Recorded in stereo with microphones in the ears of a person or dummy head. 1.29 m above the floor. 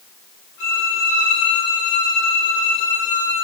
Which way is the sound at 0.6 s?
65° left (ahead or behind).